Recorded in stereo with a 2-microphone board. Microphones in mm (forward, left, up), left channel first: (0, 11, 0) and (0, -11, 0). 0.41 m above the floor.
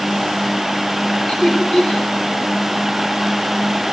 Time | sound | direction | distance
1.3 | laughter | 55° left (ahead or behind) | 3 m